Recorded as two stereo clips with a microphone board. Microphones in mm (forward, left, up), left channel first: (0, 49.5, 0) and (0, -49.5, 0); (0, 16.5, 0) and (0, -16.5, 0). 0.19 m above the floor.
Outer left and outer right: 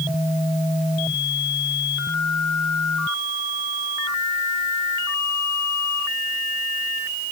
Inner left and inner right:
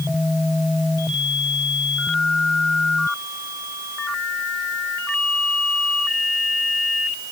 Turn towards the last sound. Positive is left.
No sound to turn to.